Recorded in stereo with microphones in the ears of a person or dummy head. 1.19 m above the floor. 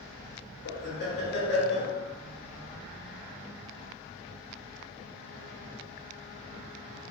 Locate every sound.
0.7 s laughter: 55° left (ahead or behind), 1.0 m